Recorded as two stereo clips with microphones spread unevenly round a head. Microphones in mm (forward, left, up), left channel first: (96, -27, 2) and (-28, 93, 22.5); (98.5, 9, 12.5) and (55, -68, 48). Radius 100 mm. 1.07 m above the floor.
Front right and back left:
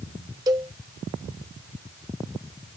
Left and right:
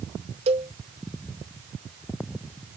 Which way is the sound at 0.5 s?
150° right.